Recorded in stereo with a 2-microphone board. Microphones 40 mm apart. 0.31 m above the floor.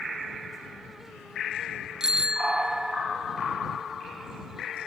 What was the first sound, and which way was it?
A bicycle bell, 15° right (ahead or behind).